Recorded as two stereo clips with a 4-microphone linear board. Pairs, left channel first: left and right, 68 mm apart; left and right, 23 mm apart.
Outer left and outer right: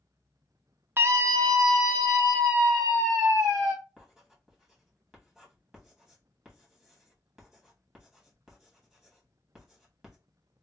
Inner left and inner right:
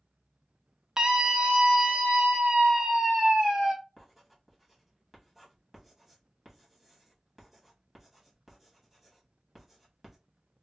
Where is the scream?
30° right (ahead or behind), 0.5 m; by 3.7 s 65° right (ahead or behind), 2.5 m.